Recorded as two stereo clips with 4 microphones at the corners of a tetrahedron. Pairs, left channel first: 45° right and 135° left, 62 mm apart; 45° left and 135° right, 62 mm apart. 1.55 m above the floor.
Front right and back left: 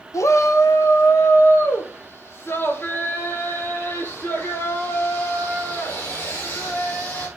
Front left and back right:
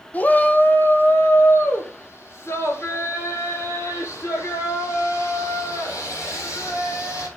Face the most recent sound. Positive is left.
turn(degrees=10)